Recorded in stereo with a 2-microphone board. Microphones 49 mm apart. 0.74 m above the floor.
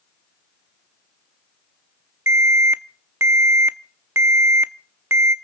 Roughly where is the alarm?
Right.